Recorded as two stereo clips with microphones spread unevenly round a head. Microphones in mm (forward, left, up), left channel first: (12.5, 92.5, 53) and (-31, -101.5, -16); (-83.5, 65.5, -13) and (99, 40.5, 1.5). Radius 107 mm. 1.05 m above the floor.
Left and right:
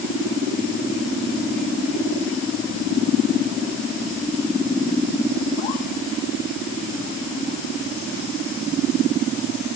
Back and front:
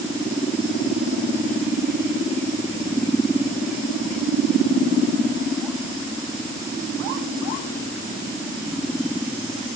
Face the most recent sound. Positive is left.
No sound to turn to.